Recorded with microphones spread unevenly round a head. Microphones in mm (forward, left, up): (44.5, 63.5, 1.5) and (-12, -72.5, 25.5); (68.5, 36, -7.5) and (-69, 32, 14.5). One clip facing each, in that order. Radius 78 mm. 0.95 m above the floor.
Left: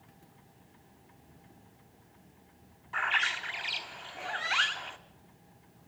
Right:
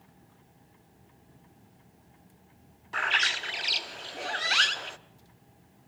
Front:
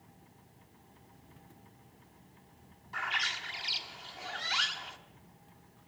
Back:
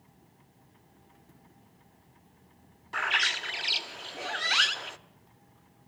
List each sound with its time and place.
2.9 s a bird: 155° right, 0.7 m